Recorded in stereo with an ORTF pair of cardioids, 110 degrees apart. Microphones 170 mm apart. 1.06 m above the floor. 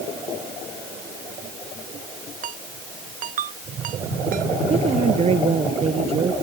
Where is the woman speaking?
40° right.